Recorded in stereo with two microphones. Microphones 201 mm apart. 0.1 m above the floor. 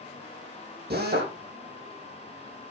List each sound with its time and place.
0.9 s a drill: 55° right (ahead or behind), 4.5 m